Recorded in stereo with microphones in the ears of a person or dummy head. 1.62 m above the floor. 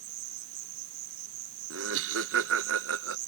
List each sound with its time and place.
0.0 s an insect: 75° right (ahead or behind)
1.7 s laughter: 70° right (ahead or behind)